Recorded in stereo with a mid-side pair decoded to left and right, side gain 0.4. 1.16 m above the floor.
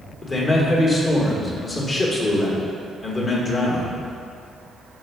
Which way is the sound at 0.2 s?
45° left.